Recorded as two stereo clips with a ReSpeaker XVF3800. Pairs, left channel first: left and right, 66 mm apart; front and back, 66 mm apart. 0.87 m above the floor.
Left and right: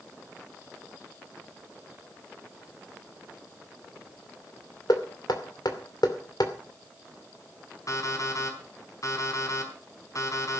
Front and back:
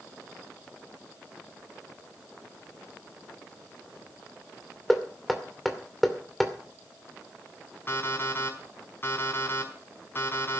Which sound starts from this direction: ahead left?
An alarm clock, at 7.9 s.